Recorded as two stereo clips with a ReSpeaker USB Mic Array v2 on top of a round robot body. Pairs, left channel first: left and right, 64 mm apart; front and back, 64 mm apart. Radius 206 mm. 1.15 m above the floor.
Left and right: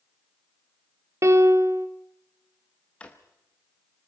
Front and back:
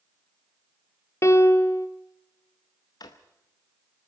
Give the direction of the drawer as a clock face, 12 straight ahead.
11 o'clock.